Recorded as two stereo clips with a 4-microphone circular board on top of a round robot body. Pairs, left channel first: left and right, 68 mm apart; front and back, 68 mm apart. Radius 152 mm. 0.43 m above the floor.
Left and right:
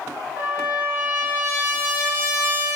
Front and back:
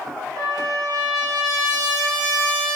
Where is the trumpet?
150° right, 1.0 m.